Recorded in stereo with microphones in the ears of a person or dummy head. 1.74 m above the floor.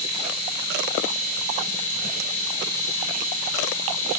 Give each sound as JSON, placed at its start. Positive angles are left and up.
{"t": 0.0, "sound": "a machine running", "side_deg": -25, "distance_m": 1.9}